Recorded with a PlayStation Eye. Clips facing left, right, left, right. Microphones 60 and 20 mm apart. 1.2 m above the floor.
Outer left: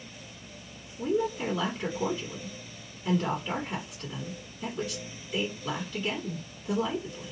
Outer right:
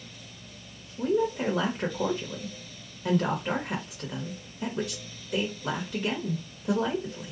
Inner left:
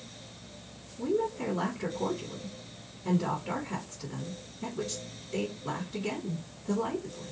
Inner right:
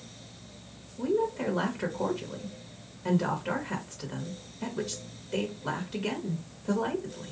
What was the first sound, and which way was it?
A woman speaking, 75° right (ahead or behind).